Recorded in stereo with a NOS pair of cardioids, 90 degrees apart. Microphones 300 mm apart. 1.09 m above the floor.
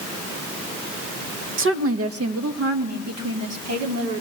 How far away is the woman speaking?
About 0.7 m.